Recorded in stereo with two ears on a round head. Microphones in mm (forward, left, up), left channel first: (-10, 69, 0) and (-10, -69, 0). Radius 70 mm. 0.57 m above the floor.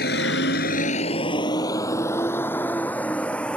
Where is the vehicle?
65° left (ahead or behind); by 3.6 s 5° left (ahead or behind).